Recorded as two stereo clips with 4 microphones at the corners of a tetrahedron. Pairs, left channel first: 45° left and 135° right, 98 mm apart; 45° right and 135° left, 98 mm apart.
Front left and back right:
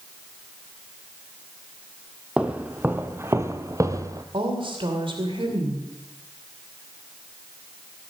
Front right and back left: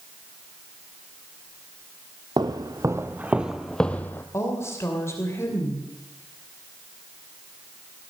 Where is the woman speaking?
105° right, 2.5 m.